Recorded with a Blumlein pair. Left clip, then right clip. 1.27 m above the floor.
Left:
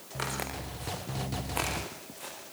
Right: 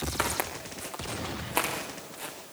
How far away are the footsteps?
About 7 m.